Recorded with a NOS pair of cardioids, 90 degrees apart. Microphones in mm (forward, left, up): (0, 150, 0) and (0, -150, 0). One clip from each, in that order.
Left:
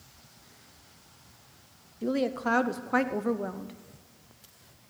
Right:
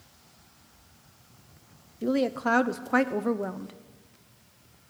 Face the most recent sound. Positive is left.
turn(degrees=-10)